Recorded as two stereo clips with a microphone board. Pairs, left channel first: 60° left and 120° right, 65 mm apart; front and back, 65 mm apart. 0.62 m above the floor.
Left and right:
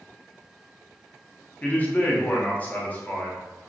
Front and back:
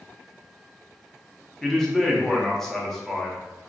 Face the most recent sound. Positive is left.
turn(degrees=80)